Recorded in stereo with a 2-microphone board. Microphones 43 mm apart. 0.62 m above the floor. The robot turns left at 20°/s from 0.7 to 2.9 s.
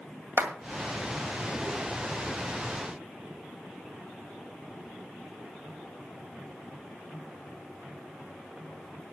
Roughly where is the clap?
Right.